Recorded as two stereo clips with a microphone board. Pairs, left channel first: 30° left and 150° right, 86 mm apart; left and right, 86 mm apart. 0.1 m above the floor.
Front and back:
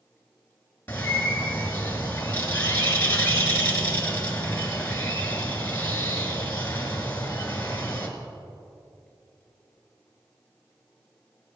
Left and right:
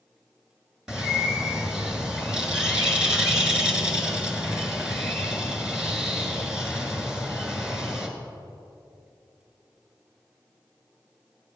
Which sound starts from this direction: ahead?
A bird, at 0.9 s.